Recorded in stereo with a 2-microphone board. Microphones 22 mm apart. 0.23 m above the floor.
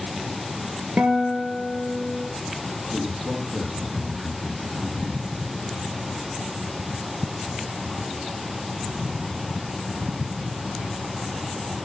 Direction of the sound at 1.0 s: 75° right (ahead or behind).